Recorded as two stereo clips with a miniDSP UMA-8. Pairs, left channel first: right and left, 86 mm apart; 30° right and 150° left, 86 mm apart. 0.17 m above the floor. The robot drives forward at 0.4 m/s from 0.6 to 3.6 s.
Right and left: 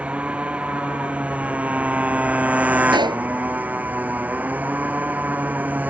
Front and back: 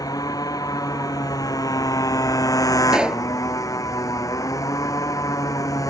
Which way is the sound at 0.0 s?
15° left.